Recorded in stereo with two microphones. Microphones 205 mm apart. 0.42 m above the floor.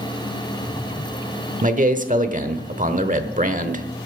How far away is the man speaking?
About 1.0 m.